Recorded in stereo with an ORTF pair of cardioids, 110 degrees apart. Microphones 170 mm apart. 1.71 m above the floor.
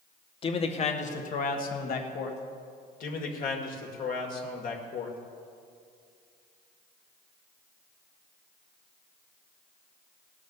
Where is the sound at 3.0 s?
55° left, 2 m.